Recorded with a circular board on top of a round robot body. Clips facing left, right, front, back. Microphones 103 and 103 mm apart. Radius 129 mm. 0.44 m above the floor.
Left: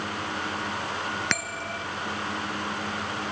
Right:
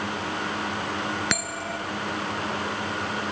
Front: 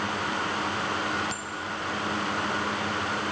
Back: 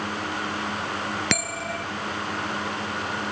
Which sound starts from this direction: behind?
A bell, at 1.3 s.